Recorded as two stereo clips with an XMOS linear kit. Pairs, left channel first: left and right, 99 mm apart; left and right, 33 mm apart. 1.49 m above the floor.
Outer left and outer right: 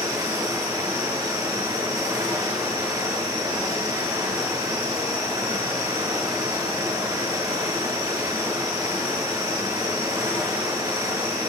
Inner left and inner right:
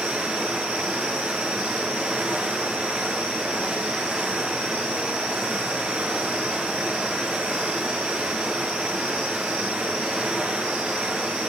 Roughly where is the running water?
Right.